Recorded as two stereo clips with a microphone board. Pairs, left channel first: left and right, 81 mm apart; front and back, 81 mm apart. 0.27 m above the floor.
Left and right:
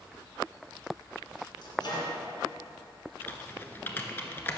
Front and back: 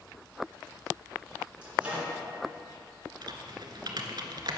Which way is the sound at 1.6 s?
105° left.